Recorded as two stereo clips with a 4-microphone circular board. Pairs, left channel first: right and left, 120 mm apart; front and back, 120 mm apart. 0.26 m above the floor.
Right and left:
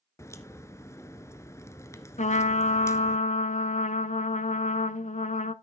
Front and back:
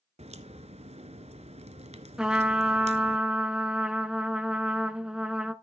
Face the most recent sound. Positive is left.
turn(degrees=-95)